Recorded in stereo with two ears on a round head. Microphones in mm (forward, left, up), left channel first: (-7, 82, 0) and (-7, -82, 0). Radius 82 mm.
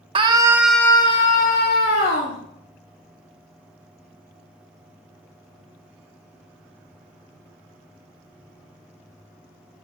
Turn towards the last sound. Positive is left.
turn(degrees=60)  # may be behind; listen again after turning